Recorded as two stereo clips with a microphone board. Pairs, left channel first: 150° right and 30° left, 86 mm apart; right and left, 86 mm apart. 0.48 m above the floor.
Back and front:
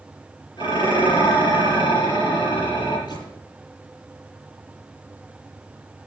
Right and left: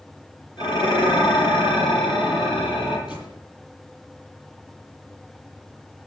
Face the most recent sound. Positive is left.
turn(degrees=-115)